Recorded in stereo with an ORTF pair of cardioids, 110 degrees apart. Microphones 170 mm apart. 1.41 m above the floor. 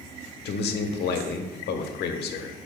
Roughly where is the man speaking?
Ahead left.